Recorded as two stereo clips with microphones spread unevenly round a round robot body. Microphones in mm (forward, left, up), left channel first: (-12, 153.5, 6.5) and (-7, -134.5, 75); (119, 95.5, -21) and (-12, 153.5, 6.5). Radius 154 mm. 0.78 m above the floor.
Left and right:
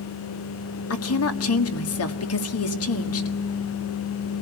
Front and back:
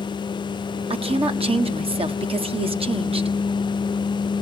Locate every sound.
0.9 s a woman speaking: 105° left, 1.6 m